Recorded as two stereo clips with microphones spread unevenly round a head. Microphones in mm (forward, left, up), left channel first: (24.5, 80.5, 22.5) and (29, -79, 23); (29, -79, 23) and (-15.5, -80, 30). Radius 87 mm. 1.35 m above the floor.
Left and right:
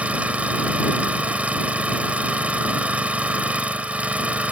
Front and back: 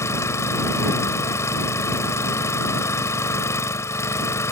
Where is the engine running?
5° right.